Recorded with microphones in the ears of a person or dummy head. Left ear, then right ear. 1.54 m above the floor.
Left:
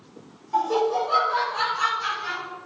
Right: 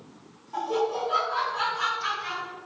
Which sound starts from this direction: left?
Laughter, at 0.5 s.